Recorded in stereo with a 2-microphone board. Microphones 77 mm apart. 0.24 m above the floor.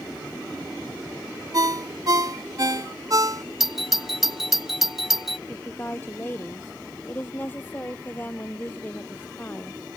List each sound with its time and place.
1.5 s a ringtone: 50° right (ahead or behind)
3.6 s a doorbell: 5° right (ahead or behind)
5.5 s a woman speaking: 25° left (ahead or behind)